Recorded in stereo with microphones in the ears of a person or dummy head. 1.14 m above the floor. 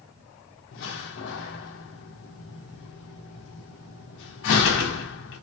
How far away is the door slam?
About 0.6 m.